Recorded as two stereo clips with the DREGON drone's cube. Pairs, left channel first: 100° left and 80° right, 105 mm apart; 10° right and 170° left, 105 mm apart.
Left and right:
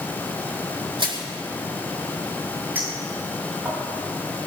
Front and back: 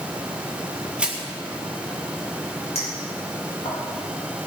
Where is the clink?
10° right, 8 m.